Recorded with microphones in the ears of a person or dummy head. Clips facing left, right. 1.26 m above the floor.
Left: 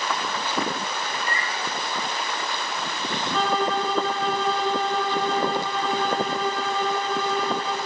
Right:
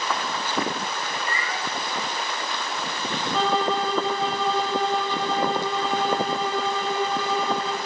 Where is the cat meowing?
20° left (ahead or behind), 4.5 m.